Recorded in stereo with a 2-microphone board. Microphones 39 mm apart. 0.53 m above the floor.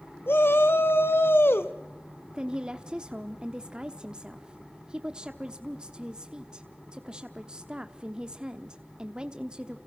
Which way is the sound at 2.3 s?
25° right (ahead or behind).